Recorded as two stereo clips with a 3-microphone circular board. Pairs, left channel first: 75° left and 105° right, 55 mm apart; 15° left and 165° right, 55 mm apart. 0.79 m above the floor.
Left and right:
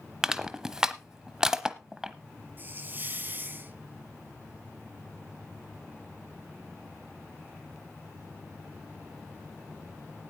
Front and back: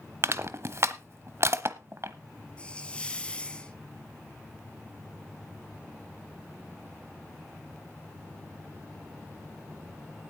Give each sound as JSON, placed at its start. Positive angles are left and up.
{"t": 0.2, "sound": "crushing", "azimuth_deg": 180, "distance_m": 0.9}
{"t": 2.6, "sound": "a hiss", "azimuth_deg": -55, "distance_m": 1.4}